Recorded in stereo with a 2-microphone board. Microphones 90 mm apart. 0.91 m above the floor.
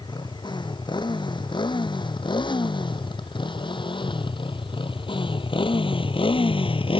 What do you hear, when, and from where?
0.0 s a motorcycle: 55° left (ahead or behind); by 7.0 s 80° left